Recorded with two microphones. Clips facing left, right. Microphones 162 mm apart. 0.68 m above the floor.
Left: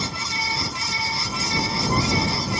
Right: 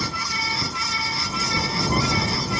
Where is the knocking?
I don't hear knocking.